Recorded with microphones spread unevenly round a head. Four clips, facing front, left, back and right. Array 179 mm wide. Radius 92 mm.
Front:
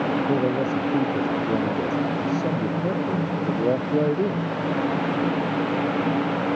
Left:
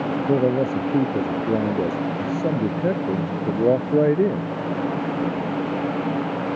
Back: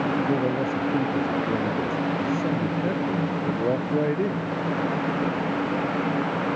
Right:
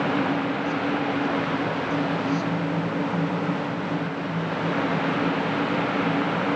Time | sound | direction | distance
0.3 | a man speaking | 80° left | ?